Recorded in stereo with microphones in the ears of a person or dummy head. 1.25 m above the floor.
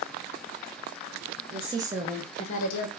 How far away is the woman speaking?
About 1.0 m.